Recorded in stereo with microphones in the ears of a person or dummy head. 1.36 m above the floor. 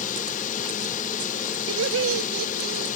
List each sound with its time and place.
0.0 s a drone: 45° left (ahead or behind)
1.7 s laughter: 70° right (ahead or behind)